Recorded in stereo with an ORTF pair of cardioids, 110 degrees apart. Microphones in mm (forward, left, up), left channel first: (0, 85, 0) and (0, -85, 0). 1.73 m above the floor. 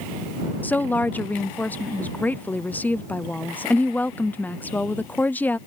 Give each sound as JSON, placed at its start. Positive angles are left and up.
{"t": 0.6, "sound": "a woman speaking", "azimuth_deg": 10}